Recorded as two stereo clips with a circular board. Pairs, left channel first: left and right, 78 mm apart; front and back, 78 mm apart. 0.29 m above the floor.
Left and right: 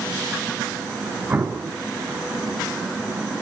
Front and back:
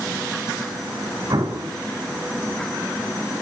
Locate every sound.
1.3 s an explosion: 150° right, 4.5 m